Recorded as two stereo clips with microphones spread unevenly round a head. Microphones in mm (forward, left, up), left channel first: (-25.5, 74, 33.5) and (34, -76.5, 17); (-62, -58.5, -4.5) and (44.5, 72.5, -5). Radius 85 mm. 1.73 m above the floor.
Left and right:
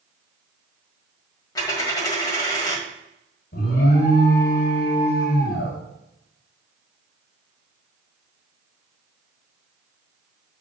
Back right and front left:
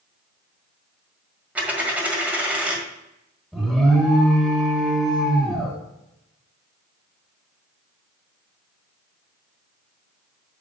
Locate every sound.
1.6 s a dropped coin: 120° left, 1.6 m
3.5 s an alarm: 140° left, 1.6 m